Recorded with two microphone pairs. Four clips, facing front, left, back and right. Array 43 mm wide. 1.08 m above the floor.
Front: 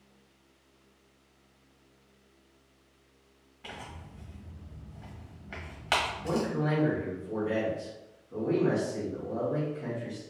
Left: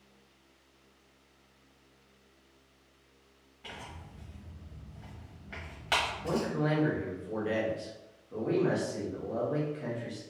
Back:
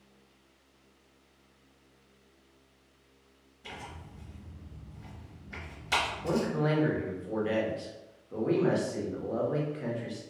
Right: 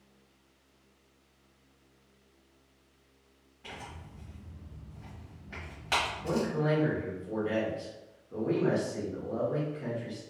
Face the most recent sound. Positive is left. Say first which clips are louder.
# right 1 dB, back 1 dB
turn(degrees=165)